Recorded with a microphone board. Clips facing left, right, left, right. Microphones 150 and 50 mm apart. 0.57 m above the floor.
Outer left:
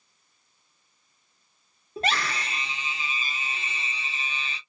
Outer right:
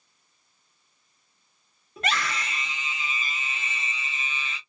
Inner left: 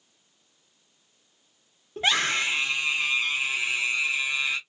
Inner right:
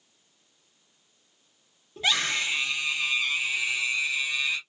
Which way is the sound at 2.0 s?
30° left (ahead or behind).